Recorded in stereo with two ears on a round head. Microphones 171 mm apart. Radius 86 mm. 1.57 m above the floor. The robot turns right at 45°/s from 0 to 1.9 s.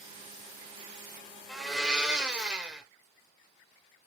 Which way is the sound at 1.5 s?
Centre (ahead or behind).